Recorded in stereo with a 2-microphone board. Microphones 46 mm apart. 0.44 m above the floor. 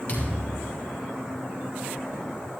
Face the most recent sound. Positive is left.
turn(degrees=25)  # may be behind; listen again after turning